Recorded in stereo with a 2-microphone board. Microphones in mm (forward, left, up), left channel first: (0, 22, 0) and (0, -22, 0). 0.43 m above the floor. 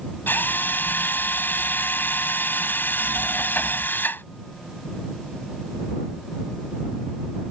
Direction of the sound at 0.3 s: 50° left (ahead or behind).